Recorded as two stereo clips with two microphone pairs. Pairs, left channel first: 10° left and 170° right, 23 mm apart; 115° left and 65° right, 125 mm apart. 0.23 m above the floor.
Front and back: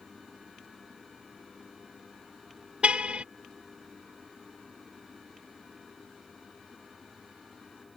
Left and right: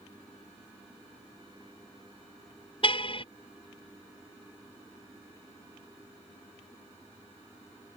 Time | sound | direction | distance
2.8 | a car horn | 155° left | ?